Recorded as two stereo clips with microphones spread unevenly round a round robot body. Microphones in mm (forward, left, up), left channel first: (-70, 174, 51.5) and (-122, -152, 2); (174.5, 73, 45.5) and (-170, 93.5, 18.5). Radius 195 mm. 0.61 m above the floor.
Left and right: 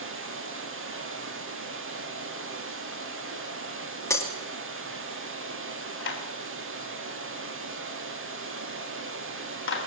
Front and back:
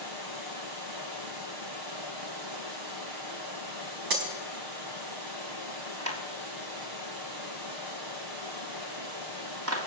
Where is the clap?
135° left, 5 m.